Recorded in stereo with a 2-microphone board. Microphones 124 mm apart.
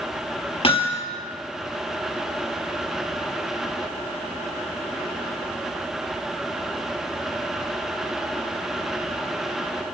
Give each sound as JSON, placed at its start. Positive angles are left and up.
{"t": 0.6, "sound": "hammering", "side_deg": 50, "distance_m": 4.5}